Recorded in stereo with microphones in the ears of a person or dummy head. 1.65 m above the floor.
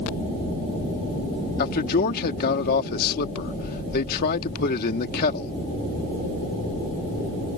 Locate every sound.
1.6 s a man speaking: 50° left (ahead or behind)